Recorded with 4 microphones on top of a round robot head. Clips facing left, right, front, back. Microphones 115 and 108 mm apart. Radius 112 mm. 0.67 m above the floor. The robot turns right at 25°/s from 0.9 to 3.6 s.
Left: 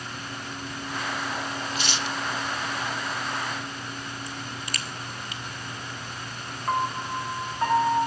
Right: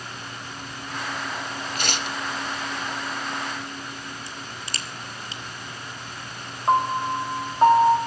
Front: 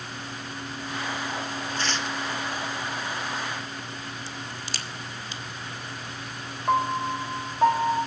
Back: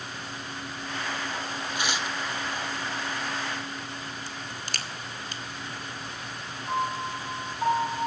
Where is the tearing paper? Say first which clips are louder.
Right 3 dB, even; 105° right, 1.0 m; by 2.2 s 95° right, 1.0 m.